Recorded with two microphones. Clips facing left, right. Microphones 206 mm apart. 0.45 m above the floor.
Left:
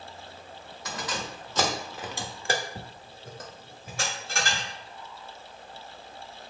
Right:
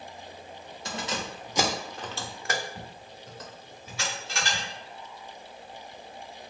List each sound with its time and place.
0.8 s keys jangling: 30° right (ahead or behind), 1.0 m; by 4.7 s 50° left (ahead or behind), 1.7 m